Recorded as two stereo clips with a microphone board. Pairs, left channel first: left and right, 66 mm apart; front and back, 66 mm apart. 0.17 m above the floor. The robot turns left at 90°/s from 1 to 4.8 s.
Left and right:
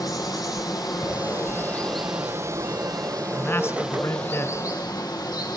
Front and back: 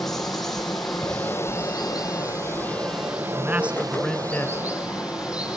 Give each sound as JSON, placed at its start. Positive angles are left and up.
{"t": 0.0, "sound": "running water", "azimuth_deg": 90, "distance_m": 4.0}
{"t": 1.0, "sound": "ticking", "azimuth_deg": 110, "distance_m": 10.0}
{"t": 3.3, "sound": "a man speaking", "azimuth_deg": 150, "distance_m": 1.6}